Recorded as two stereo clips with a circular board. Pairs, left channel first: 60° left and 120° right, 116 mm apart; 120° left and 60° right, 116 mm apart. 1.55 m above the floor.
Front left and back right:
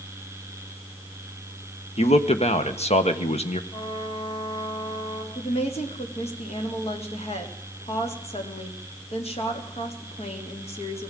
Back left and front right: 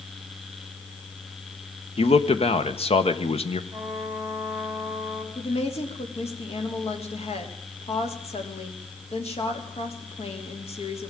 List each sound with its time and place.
2.0 s a man speaking: 85° left, 1.5 m
3.7 s a trumpet: 15° left, 4 m
5.3 s a woman speaking: 90° left, 3.5 m